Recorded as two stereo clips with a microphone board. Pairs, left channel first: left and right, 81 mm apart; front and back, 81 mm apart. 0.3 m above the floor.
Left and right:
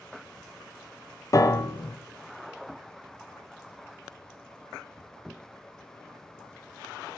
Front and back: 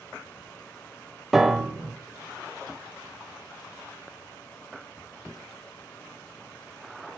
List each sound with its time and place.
1.3 s a piano: 95° left, 0.5 m